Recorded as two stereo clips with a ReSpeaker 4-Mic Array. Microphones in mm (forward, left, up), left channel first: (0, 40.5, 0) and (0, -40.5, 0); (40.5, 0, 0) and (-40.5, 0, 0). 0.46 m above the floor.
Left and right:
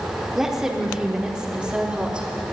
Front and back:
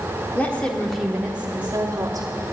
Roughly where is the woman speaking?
Ahead.